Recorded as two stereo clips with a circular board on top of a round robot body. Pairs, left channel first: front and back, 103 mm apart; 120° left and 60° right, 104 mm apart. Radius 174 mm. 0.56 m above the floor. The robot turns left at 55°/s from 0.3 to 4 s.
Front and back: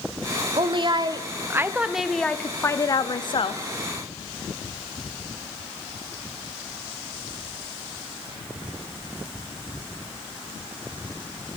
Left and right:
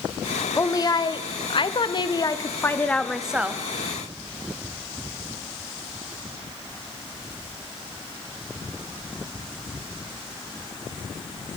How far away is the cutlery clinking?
No cutlery clinking in this recording.